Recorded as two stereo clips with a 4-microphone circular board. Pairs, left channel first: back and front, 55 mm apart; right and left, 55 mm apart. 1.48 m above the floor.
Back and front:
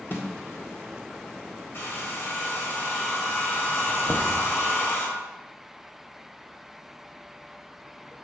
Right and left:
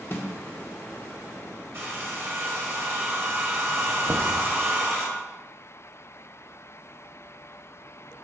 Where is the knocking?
110° left, 1.0 m.